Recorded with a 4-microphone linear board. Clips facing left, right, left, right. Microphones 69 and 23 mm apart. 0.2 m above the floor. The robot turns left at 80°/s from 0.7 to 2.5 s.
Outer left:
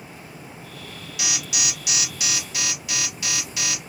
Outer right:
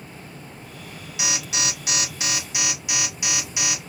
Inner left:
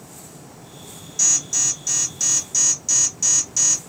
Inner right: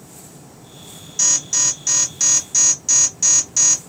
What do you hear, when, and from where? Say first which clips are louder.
1.2 s an alarm: outer right 2 dB, inner right 2 dB; 45° right, 0.8 m; by 3.9 s 150° right, 0.8 m